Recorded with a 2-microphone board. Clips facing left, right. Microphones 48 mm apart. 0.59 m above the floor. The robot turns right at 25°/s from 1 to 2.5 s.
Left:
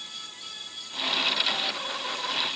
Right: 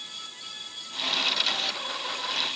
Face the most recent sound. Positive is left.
No sound to turn to.